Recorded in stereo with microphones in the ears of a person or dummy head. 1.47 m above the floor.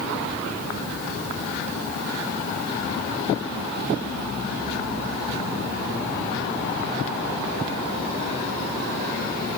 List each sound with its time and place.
Only background noise.